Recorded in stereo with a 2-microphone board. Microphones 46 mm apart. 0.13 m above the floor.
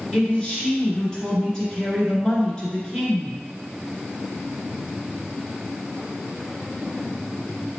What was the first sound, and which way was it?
A man speaking, 15° left (ahead or behind).